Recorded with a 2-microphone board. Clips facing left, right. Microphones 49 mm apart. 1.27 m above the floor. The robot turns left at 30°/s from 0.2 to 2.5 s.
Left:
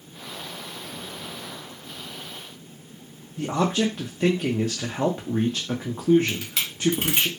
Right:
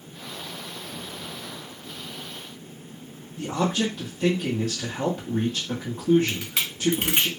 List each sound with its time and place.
3.4 s a man speaking: 35° left (ahead or behind), 0.6 m
6.3 s a camera shutter: 15° right (ahead or behind), 0.9 m